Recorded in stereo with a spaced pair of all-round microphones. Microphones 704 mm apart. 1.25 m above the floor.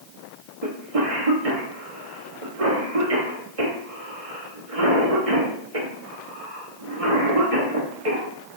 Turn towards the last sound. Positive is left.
turn(degrees=-50)  # may be behind; listen again after turning